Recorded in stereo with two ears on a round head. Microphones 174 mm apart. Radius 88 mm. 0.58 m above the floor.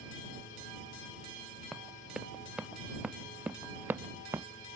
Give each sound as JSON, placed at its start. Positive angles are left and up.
{"t": 1.7, "sound": "running footsteps", "side_deg": 0}